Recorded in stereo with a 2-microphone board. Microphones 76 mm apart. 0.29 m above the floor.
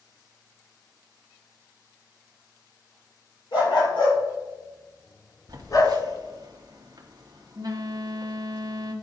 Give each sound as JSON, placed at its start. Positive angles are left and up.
{"t": 3.5, "sound": "a dog barking", "side_deg": 75, "distance_m": 3.0}
{"t": 5.5, "sound": "a phone buzzing", "side_deg": -55, "distance_m": 1.2}